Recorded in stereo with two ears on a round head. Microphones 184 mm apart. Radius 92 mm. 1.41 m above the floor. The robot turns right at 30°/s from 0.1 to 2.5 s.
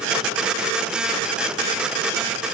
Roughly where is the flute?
I don't hear a flute.